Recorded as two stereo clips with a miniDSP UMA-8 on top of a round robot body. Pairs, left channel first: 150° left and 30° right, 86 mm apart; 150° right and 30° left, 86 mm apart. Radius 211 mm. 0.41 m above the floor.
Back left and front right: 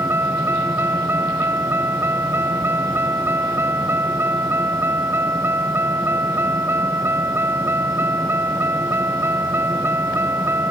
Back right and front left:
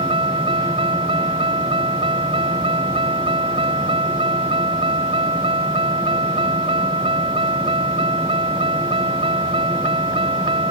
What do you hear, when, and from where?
0.0 s a vehicle: 35° left